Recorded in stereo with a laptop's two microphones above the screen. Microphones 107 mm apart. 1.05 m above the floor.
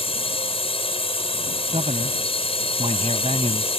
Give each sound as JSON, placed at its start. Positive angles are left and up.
{"t": 0.0, "sound": "a drone", "side_deg": 60}
{"t": 1.7, "sound": "a man speaking", "side_deg": -70}